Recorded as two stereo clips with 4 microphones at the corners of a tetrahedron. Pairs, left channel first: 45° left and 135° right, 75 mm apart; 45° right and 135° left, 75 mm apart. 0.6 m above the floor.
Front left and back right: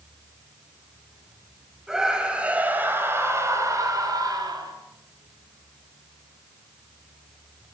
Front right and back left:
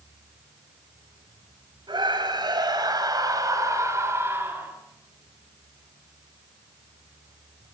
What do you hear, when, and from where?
1.9 s a scream: 140° left, 4.5 m; by 4.7 s 160° right, 4.5 m